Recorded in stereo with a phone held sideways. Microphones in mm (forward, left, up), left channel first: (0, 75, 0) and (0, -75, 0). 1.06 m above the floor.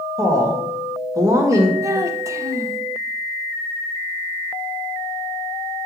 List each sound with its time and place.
0.2 s a woman speaking: 20° right (ahead or behind), 1.5 m
1.8 s a child speaking: 20° right (ahead or behind), 0.7 m